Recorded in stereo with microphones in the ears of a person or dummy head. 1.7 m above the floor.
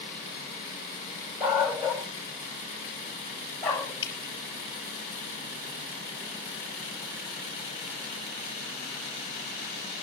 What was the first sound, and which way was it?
A dog barking, 5° right (ahead or behind).